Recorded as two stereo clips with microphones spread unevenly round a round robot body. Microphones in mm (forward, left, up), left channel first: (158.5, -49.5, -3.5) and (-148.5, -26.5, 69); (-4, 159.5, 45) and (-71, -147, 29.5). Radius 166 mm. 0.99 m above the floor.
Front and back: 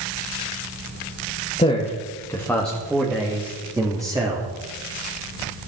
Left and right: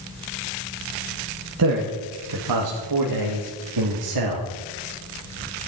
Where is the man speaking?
70° right, 1.7 m; by 4.5 s 105° right, 2.5 m.